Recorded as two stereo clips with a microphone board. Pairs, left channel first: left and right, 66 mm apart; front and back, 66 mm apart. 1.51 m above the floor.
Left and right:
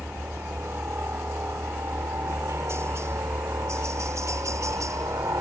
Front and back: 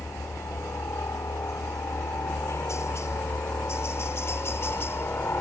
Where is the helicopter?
35° right; by 5.4 s 55° right.